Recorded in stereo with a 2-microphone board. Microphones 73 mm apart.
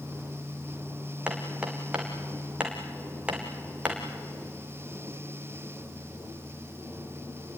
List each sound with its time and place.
1.3 s hammering: 15° right (ahead or behind), 3.5 m